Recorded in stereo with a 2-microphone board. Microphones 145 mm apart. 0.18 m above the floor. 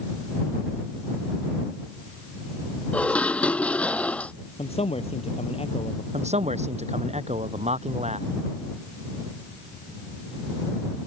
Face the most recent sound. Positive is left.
turn(degrees=-50)  # may be behind; listen again after turning